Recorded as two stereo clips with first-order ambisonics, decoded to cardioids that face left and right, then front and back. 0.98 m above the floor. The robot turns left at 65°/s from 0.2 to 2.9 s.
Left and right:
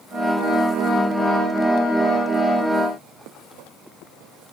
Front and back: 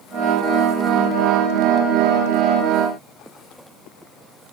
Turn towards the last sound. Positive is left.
No sound to turn to.